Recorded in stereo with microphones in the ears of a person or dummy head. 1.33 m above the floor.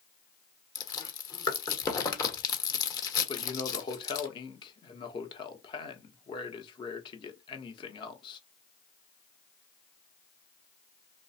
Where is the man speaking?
30° left (ahead or behind), 0.9 m.